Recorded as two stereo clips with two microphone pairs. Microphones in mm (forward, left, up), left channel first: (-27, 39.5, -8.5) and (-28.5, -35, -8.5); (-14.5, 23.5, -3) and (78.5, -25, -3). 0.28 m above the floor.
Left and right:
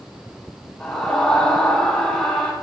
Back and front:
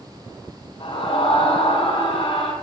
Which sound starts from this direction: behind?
A scream, at 0.8 s.